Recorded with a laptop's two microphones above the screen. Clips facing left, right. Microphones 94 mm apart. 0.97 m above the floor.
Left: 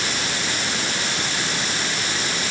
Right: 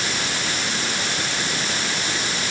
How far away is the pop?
No pop in this recording.